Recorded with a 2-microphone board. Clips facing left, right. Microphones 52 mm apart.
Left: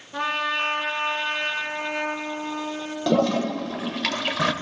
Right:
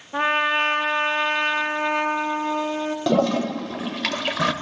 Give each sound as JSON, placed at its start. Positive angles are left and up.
{"t": 0.1, "sound": "a trumpet", "side_deg": -30, "distance_m": 0.6}
{"t": 3.1, "sound": "a toilet flushing", "side_deg": -10, "distance_m": 0.5}